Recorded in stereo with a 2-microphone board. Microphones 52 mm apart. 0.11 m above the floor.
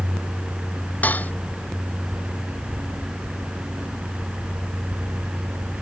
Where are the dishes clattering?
30° left (ahead or behind).